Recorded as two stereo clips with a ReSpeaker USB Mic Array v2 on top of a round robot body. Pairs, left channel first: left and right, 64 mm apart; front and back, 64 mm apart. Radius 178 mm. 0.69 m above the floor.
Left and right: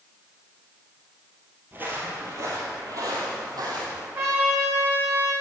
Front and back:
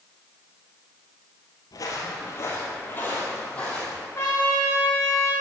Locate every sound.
1.7 s footsteps: 30° right, 1.4 m; by 4.0 s 75° right, 2.5 m
4.2 s a trumpet: 45° right, 4.5 m